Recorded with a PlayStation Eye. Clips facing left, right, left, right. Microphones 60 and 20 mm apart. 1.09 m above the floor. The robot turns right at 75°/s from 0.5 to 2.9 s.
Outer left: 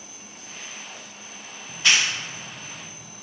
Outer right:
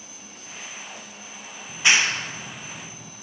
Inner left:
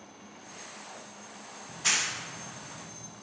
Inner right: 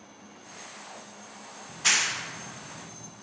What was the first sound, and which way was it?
A clap, 10° right (ahead or behind).